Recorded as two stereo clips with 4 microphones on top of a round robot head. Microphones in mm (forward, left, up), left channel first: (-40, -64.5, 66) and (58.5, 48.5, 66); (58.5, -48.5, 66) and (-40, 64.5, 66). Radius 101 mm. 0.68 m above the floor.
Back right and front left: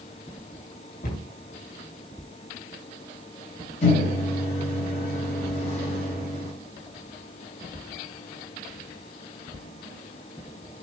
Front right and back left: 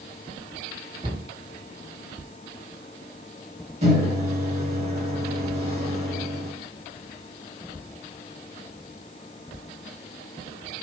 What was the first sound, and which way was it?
A cupboard door, 170° right.